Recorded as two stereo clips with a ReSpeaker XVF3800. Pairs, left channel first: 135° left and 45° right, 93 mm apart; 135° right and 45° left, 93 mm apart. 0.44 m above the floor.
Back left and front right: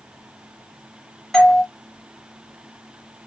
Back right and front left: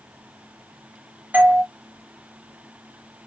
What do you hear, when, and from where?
1.3 s a doorbell: 60° left, 1.4 m